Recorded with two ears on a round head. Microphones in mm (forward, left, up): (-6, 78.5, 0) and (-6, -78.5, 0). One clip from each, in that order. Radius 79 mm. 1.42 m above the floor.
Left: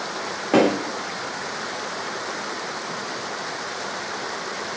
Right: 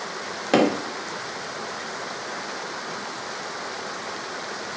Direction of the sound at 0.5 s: 75° right (ahead or behind).